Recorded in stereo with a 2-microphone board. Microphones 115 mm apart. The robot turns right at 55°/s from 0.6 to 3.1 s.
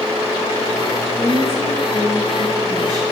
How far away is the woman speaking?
About 7 m.